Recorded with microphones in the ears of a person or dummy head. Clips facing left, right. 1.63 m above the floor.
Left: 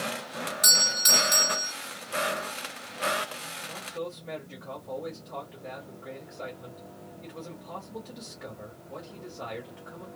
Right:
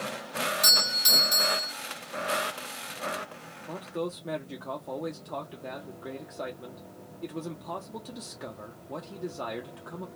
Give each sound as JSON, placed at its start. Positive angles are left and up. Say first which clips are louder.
{"t": 0.6, "sound": "a doorbell", "louder": "left 1 dB", "side_deg": -5, "distance_m": 1.1}
{"t": 3.6, "sound": "a man speaking", "louder": "right 4 dB", "side_deg": -55, "distance_m": 0.7}